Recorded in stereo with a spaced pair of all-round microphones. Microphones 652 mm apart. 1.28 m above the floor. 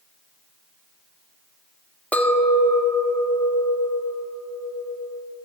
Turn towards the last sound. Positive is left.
turn(degrees=0)  # may be behind; listen again after turning